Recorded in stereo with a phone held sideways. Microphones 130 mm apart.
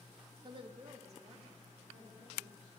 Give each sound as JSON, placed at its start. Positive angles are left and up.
{"t": 0.4, "sound": "a woman speaking", "side_deg": -30, "distance_m": 0.5}